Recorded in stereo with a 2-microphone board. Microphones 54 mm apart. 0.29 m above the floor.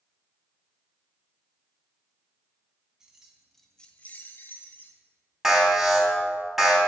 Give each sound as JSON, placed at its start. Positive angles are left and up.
{"t": 3.0, "sound": "keys jangling", "side_deg": -10, "distance_m": 1.7}
{"t": 5.4, "sound": "an alarm", "side_deg": -5, "distance_m": 3.5}